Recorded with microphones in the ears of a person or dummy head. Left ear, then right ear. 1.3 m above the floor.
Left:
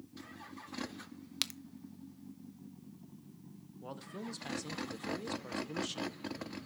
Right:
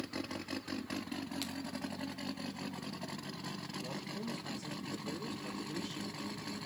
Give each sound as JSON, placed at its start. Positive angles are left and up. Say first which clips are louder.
{"t": 1.4, "sound": "a crack", "louder": "left 5 dB", "side_deg": 50, "distance_m": 0.6}
{"t": 3.8, "sound": "a man speaking", "louder": "left 2 dB", "side_deg": 55, "distance_m": 0.8}